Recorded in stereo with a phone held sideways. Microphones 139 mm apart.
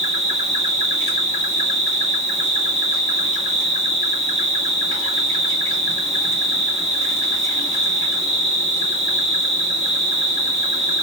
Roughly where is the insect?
Right.